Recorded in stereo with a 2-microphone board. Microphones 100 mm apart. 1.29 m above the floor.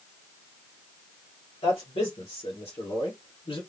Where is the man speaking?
80° left, 2.5 m; by 3.6 s 60° left (ahead or behind), 1.7 m.